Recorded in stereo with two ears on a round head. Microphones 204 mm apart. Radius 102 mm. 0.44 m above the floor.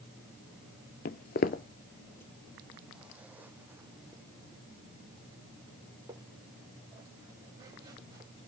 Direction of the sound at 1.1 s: 40° left (ahead or behind).